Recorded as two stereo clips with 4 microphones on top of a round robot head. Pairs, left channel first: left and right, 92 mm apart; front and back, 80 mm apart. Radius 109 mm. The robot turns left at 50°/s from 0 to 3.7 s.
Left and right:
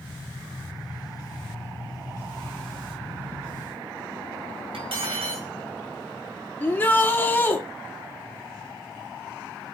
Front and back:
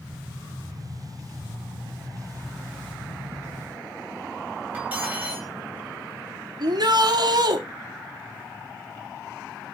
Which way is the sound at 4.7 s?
105° right.